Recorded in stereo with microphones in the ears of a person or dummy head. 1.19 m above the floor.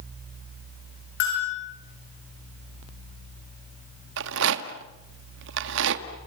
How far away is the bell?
About 9.5 m.